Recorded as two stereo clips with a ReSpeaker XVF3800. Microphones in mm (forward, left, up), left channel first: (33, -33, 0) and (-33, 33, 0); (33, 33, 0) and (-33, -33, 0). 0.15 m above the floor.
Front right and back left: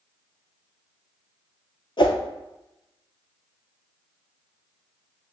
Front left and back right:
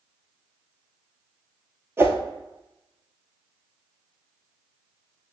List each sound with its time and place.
2.0 s a whoosh: 75° right, 0.6 m